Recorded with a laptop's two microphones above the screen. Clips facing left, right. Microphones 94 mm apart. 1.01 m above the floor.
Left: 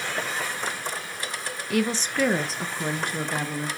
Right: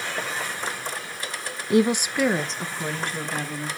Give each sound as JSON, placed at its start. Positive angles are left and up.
{"t": 1.7, "sound": "a woman speaking", "side_deg": -25, "distance_m": 0.5}